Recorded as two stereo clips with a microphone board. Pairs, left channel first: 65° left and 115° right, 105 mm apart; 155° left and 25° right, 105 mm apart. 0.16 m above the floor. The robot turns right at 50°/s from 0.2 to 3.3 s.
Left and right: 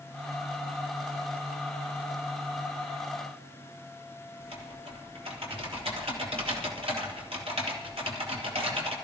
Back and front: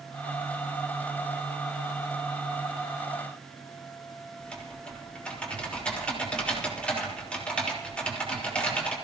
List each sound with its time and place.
4.4 s typing on a keyboard: 125° right, 4.5 m